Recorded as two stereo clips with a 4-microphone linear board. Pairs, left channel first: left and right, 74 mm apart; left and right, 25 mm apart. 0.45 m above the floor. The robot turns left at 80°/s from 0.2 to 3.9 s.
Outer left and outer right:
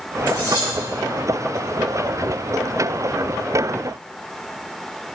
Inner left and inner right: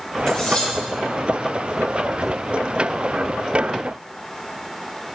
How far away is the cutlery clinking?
About 1.9 m.